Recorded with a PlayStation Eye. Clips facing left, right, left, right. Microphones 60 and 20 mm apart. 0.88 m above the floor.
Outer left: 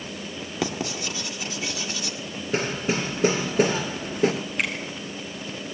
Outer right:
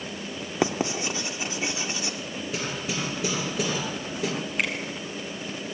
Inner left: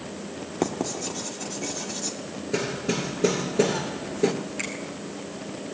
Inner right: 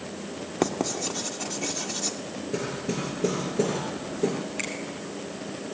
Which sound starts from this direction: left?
Hammering, at 2.5 s.